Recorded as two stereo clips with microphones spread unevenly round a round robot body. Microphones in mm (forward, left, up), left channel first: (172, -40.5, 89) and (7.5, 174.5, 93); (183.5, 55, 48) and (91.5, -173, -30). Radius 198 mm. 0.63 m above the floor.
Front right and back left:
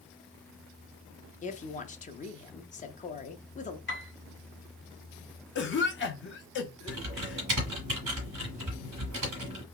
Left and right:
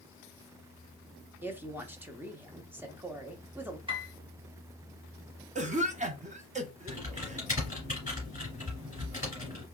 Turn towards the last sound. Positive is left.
turn(degrees=170)